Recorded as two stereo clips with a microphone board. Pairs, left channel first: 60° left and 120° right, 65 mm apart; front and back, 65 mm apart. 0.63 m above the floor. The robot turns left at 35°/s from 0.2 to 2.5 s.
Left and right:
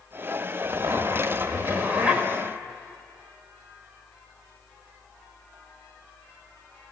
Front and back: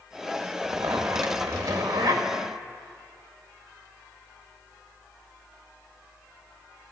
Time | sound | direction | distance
0.6 | a zipper | 135° right | 1.1 m